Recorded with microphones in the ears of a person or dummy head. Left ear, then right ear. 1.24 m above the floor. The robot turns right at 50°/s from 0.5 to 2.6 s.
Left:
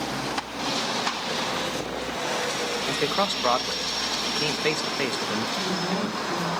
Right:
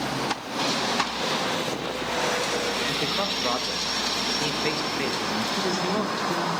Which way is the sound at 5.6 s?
35° right (ahead or behind).